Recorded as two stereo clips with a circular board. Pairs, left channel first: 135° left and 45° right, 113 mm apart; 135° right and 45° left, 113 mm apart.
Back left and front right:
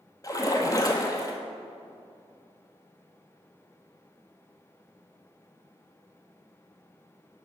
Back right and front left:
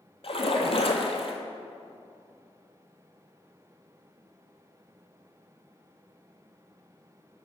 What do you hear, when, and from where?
0.2 s a splash: 165° right, 0.8 m